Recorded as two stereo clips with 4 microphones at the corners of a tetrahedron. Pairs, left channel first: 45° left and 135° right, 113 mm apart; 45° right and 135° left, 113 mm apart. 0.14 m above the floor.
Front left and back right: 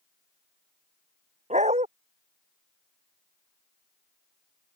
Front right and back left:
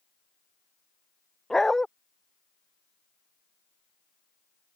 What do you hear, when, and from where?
1.5 s a dog barking: 130° right